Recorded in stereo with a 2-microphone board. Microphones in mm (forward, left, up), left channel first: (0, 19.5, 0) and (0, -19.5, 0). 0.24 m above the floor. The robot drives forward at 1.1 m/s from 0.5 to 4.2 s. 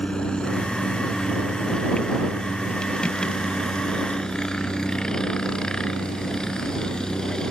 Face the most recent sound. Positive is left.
turn(degrees=20)  # may be behind; listen again after turning